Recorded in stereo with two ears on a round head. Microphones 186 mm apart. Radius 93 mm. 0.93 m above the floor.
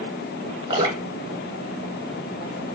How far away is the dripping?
About 3.5 m.